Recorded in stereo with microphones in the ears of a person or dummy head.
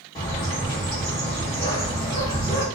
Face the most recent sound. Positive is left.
turn(degrees=30)  # may be behind; listen again after turning